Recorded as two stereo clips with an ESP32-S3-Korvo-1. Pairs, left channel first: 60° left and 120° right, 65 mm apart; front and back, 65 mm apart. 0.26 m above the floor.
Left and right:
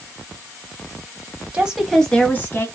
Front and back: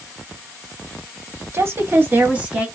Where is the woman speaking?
Straight behind, 1.3 m; by 2.6 s 110° left, 1.8 m.